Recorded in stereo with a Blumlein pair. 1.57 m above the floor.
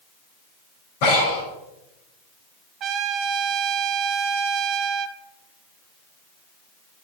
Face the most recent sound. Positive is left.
turn(degrees=-30)